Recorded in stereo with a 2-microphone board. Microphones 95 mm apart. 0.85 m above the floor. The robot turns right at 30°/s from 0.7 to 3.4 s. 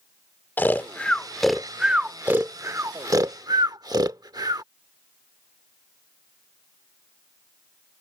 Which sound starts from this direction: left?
Snoring, at 0.6 s.